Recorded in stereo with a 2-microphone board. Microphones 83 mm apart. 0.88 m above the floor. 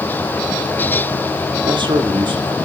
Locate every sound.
1.6 s a man speaking: 70° right (ahead or behind), 2 m